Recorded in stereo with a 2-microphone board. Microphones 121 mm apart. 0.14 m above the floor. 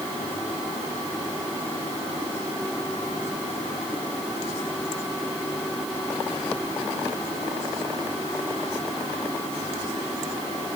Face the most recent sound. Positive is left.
No sound to turn to.